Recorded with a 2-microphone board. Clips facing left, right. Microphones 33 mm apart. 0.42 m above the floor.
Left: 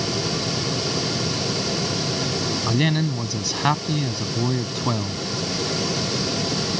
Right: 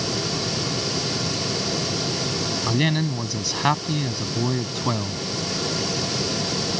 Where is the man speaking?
Centre (ahead or behind).